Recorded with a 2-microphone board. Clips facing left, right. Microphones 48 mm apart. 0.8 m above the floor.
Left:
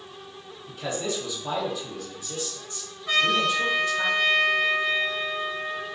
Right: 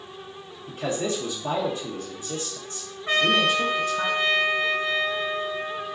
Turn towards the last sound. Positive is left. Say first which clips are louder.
# right 2 dB
turn(degrees=-35)  # may be behind; listen again after turning